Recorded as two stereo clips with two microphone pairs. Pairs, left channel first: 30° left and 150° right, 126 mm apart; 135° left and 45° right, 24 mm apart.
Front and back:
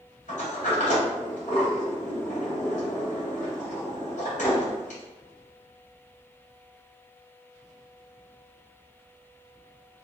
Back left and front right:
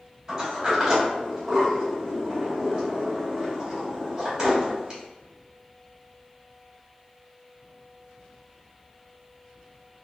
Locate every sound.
0.3 s a sliding door: 15° left, 2.0 m